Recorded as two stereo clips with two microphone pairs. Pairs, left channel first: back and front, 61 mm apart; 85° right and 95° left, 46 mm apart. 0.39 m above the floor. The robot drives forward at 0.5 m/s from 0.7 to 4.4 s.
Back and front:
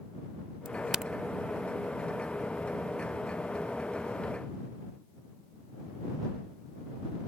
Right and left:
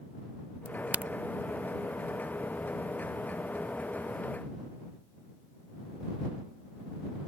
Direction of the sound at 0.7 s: 60° left.